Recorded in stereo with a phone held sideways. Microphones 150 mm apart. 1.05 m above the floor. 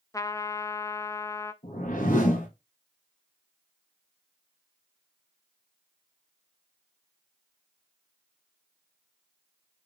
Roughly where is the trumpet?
Left.